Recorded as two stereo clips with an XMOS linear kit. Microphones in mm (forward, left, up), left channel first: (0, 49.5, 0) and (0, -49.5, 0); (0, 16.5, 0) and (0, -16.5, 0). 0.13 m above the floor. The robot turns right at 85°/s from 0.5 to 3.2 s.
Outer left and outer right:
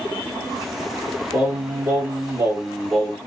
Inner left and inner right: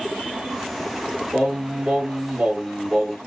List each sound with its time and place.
1.3 s singing: 15° right (ahead or behind), 1.6 m; by 3.2 s 5° left (ahead or behind), 1.6 m